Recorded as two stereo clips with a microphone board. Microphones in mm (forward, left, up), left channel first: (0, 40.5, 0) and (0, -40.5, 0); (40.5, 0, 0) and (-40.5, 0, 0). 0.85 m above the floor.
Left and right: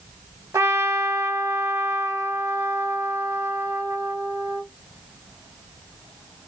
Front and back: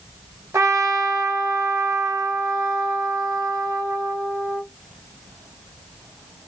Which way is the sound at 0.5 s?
135° right.